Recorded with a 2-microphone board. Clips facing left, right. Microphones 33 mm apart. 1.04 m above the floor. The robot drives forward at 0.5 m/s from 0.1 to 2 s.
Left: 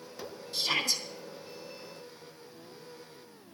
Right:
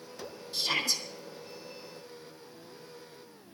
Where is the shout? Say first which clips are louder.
Even; 10° right (ahead or behind), 3.5 m.